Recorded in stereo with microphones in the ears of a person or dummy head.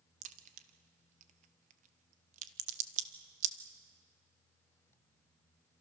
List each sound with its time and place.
0.2 s a crack: 45° right (ahead or behind), 1.3 m